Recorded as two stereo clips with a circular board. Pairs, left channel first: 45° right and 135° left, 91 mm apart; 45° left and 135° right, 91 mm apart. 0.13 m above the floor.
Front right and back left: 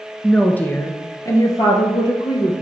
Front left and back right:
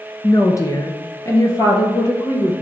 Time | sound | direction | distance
0.2 | a woman speaking | 35° left | 1.2 m